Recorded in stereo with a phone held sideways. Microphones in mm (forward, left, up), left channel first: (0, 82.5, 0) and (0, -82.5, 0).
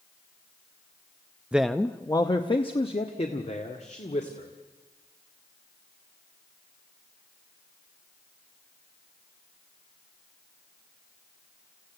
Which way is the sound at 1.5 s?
10° right (ahead or behind).